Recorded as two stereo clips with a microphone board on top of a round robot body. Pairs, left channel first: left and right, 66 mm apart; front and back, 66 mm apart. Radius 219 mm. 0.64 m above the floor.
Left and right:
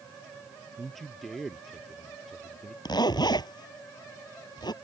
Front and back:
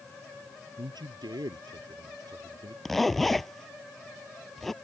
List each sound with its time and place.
0.8 s a man speaking: straight behind
2.9 s a zipper: 85° left